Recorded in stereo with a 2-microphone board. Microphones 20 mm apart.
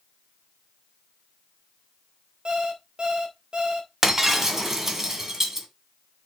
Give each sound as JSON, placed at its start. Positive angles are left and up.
{"t": 2.5, "sound": "an alarm clock", "side_deg": -45, "distance_m": 3.0}
{"t": 4.0, "sound": "breaking glass", "side_deg": -20, "distance_m": 1.9}